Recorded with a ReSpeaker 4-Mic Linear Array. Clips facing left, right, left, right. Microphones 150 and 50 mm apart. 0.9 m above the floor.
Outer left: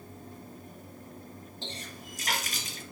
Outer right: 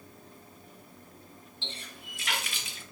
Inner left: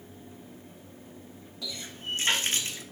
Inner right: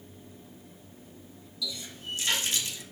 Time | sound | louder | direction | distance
1.6 | a running tap | outer left 3 dB, even | 40° left (ahead or behind) | 1.0 m